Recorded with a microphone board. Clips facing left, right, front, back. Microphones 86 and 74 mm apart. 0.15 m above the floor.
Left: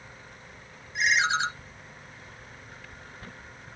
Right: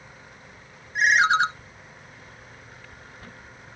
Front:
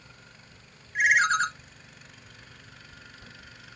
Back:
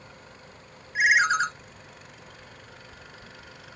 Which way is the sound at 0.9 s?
95° right.